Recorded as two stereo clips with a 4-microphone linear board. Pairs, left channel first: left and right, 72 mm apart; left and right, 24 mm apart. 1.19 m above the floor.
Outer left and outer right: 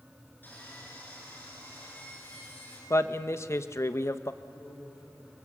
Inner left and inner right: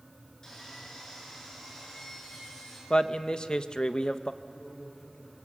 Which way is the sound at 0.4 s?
25° left (ahead or behind).